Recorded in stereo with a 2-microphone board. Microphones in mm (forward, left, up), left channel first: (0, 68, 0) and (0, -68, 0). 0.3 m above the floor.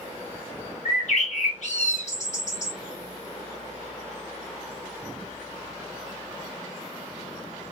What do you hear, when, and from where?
0.8 s a bird: 60° left (ahead or behind), 1.6 m